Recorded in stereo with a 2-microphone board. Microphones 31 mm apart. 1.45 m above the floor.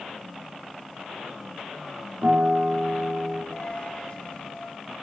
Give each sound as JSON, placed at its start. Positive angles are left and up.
{"t": 2.2, "sound": "a guitar", "side_deg": -65, "distance_m": 4.0}
{"t": 3.5, "sound": "a dropped coin", "side_deg": 40, "distance_m": 3.0}